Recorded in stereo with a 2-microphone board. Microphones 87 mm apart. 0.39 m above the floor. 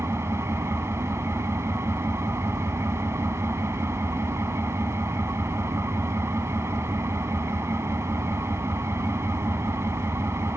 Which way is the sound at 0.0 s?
35° right (ahead or behind).